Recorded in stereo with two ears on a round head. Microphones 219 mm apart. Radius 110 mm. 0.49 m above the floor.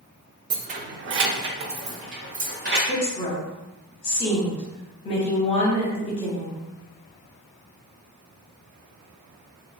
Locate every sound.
0.5 s keys jangling: 20° right (ahead or behind), 0.5 m; by 2.8 s 45° right (ahead or behind), 1.6 m
2.9 s a woman speaking: 25° left (ahead or behind), 1.3 m